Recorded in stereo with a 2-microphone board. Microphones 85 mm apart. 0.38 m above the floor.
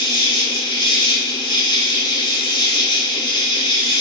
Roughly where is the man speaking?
I don't hear a man speaking.